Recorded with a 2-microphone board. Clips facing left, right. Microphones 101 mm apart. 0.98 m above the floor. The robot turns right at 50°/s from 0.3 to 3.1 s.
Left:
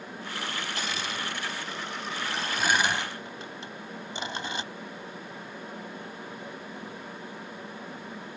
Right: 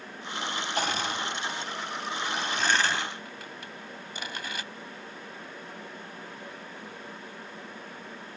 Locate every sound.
0.8 s crushing: 55° right (ahead or behind); by 4.6 s 25° left (ahead or behind)